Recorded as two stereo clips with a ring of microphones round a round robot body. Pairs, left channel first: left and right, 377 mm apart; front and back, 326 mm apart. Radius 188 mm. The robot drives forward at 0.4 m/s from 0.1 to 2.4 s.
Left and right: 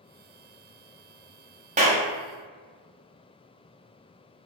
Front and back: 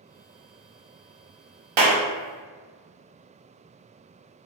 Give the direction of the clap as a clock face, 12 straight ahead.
5 o'clock.